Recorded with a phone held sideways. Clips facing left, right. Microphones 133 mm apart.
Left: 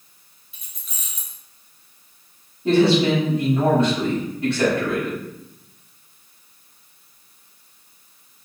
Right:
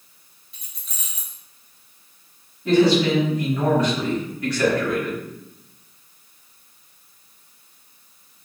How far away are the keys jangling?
About 0.9 m.